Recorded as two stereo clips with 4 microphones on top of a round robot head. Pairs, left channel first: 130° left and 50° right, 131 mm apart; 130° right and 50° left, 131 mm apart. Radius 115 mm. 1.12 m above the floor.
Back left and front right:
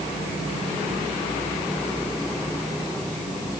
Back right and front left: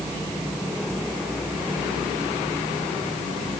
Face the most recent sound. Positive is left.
No sound to turn to.